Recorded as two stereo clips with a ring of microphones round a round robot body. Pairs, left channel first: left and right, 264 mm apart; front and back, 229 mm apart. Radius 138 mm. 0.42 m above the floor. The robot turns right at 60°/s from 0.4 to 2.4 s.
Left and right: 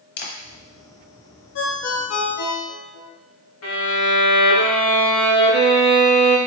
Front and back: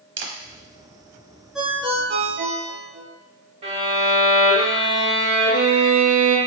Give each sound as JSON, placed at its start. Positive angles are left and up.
{"t": 0.2, "sound": "a camera shutter", "azimuth_deg": 140, "distance_m": 0.8}
{"t": 1.6, "sound": "a ringtone", "azimuth_deg": 90, "distance_m": 0.9}
{"t": 3.6, "sound": "a violin", "azimuth_deg": 120, "distance_m": 2.0}